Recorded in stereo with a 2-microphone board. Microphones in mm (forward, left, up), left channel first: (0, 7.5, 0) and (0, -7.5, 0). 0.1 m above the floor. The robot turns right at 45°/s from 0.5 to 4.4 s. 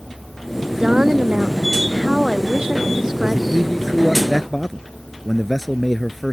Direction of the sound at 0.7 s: 140° right.